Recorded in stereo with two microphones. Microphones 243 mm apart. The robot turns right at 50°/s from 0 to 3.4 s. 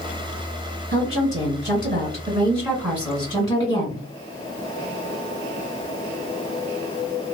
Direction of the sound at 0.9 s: 100° right.